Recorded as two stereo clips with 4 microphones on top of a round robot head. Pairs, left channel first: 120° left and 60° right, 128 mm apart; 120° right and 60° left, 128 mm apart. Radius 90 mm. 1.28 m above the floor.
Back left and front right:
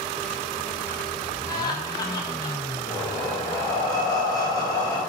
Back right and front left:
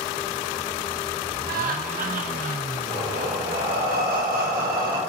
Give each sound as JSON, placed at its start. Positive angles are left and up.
{"t": 1.5, "sound": "laughter", "azimuth_deg": 60, "distance_m": 1.6}
{"t": 2.9, "sound": "breathing", "azimuth_deg": 60, "distance_m": 1.8}